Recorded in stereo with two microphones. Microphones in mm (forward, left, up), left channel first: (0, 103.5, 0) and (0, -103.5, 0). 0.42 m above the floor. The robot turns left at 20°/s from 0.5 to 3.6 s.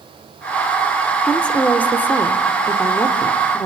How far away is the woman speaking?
About 1.4 m.